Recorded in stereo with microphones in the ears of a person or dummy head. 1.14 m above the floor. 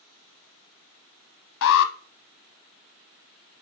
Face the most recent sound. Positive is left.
turn(degrees=65)  # may be behind; listen again after turning